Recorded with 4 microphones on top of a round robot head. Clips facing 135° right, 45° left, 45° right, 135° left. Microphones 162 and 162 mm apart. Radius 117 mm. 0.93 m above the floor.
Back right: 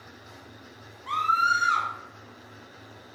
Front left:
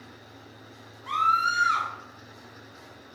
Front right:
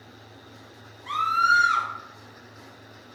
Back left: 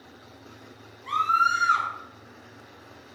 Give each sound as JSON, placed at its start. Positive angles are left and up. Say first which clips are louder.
{"t": 1.1, "sound": "a scream", "louder": "even, even", "azimuth_deg": -45, "distance_m": 1.0}